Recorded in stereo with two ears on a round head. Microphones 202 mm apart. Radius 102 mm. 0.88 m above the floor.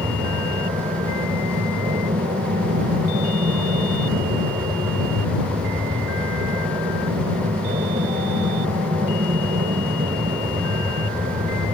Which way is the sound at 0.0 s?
25° right (ahead or behind).